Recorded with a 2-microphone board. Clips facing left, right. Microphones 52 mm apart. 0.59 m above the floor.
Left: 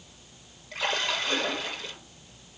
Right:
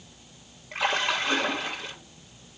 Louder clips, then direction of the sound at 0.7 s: Right 3 dB; 25° right (ahead or behind).